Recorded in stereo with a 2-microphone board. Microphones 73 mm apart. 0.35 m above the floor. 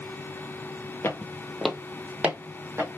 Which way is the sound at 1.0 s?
35° left (ahead or behind).